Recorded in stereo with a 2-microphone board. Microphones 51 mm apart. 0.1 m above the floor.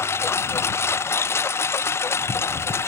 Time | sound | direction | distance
0.0 | a lawn mower | 60° left (ahead or behind) | ?